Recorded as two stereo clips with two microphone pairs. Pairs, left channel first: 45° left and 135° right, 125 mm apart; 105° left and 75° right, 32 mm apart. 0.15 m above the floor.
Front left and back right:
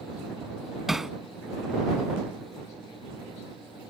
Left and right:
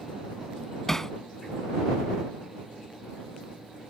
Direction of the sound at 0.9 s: 140° left.